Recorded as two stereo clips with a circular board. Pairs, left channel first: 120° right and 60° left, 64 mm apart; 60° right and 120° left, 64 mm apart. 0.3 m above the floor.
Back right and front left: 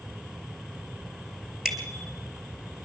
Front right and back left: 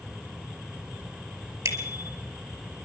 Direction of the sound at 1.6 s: 145° left.